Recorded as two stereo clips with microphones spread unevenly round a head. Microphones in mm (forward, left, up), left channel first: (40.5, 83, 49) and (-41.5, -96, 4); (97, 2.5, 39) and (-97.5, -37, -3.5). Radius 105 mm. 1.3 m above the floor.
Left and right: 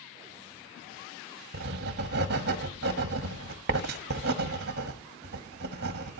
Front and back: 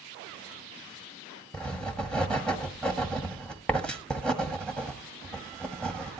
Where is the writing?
70° right, 1.2 m.